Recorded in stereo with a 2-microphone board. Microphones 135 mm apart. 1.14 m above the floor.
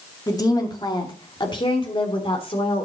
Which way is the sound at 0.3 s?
25° left (ahead or behind).